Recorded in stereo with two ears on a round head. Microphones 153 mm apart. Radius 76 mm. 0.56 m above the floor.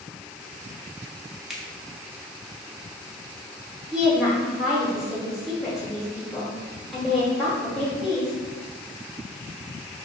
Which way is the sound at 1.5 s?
Centre (ahead or behind).